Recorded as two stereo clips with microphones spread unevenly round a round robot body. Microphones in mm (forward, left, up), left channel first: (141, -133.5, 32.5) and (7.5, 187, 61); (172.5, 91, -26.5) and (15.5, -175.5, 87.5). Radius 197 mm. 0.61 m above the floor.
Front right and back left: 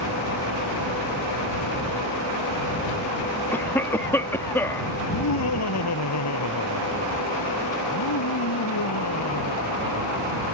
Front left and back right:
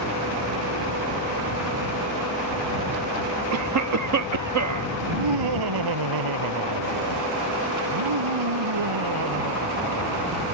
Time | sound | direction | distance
3.5 | a cough | 140° right | ?
5.0 | laughter | 120° right | ?